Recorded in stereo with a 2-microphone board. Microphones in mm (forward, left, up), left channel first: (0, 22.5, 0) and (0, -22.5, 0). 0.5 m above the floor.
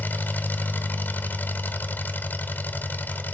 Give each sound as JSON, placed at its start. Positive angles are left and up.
{"t": 0.0, "sound": "an engine running", "side_deg": 50, "distance_m": 1.2}